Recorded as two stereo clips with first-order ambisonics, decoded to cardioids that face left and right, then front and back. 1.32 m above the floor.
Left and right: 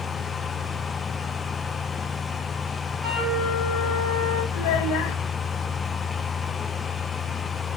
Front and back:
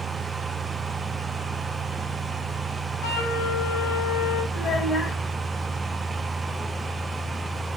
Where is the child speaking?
70° left, 6.5 m.